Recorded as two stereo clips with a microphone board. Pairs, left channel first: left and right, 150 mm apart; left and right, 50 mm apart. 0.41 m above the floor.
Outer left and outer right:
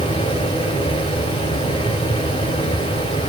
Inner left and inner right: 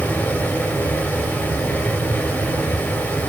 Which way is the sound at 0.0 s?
40° left (ahead or behind).